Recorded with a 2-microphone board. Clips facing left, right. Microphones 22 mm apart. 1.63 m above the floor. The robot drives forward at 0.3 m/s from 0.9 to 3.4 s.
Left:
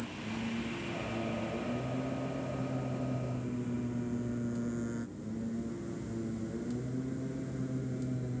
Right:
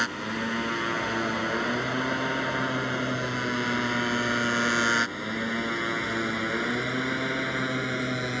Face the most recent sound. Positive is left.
turn(degrees=-80)